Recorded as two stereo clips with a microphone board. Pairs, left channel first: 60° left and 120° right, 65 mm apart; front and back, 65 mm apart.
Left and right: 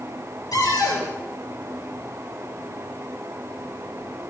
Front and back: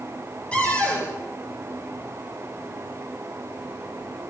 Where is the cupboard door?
70° left, 9 m.